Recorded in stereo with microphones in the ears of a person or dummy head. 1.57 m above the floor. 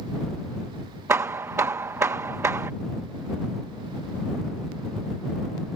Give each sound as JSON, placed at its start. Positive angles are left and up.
{"t": 1.1, "sound": "hammering", "side_deg": -15}